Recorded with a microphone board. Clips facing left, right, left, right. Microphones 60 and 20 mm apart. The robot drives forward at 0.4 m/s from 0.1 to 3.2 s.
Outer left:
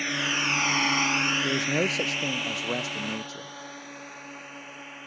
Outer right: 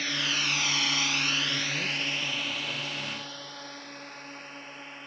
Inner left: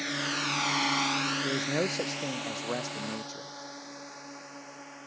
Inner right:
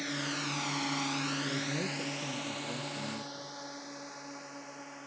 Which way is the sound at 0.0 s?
15° left (ahead or behind).